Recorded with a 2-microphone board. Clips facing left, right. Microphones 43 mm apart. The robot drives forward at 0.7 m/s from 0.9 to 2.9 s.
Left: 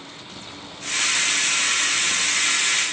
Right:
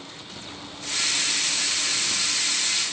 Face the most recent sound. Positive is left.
No sound to turn to.